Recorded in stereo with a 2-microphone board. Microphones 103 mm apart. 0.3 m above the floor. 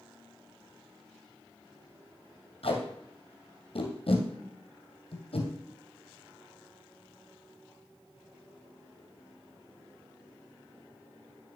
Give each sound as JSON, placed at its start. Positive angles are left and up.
{"t": 2.6, "sound": "tape being pulled", "side_deg": 65, "distance_m": 1.9}